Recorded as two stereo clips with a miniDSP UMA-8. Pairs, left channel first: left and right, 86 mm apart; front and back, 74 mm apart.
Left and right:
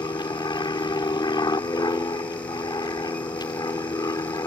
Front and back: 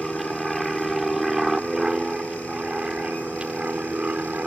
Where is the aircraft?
90° left; by 4.5 s 115° left.